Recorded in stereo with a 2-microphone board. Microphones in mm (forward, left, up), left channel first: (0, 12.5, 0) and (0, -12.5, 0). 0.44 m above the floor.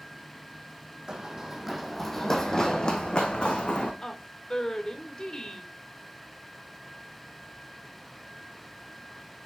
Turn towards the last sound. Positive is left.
turn(degrees=30)  # may be behind; listen again after turning